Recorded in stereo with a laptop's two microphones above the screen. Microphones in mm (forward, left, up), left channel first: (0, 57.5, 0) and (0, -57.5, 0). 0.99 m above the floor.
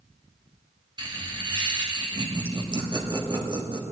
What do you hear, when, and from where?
1.0 s laughter: 40° right (ahead or behind), 1.7 m